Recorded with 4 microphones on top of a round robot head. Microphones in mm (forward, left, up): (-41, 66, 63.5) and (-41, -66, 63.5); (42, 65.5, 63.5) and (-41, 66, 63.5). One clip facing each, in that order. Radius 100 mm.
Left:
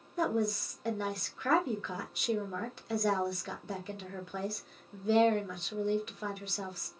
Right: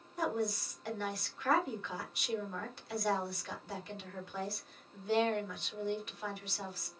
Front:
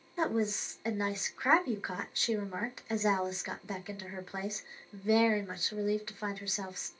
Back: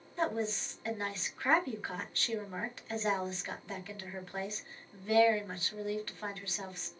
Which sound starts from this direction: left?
A woman speaking, at 0.2 s.